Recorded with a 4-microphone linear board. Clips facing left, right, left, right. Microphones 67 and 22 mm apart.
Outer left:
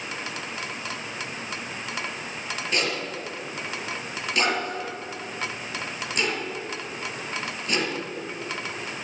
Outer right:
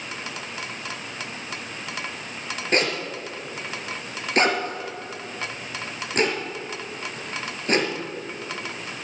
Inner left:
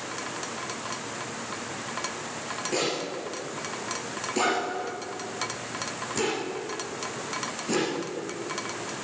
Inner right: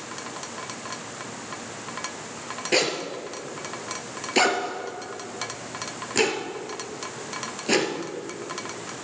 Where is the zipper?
45° right (ahead or behind), 2.5 m.